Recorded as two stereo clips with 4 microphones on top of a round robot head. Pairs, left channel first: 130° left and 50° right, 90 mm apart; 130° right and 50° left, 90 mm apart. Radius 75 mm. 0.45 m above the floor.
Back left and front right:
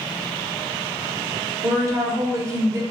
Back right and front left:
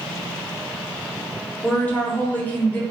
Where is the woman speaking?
70° right, 1.0 m.